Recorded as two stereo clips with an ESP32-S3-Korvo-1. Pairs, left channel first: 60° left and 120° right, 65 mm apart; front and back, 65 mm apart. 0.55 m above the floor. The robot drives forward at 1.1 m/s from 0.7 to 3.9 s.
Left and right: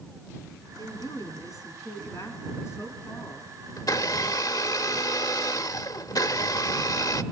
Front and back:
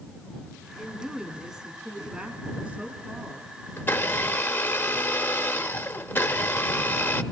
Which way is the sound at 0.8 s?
85° left.